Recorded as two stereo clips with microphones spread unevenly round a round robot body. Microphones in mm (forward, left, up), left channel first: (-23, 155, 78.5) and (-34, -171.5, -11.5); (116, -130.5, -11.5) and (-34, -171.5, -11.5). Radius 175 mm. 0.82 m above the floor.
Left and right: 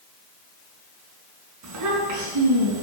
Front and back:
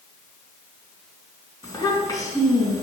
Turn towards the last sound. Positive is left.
turn(degrees=-50)